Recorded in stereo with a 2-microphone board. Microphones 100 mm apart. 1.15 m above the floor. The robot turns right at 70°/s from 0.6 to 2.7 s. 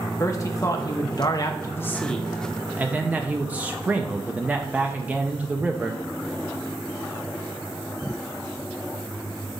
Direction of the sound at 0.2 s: 60° left.